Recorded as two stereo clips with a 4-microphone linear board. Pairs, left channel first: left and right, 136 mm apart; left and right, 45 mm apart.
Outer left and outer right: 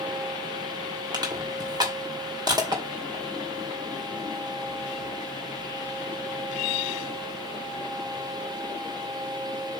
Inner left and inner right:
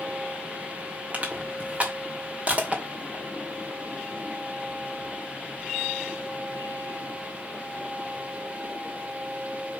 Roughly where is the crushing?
Right.